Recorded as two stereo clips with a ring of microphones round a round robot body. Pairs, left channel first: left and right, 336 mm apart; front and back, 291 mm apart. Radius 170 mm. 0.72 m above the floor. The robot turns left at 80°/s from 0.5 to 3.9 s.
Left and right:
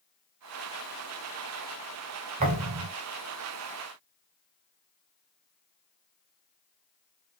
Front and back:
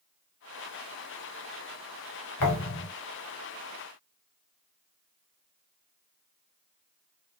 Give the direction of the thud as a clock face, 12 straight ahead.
1 o'clock.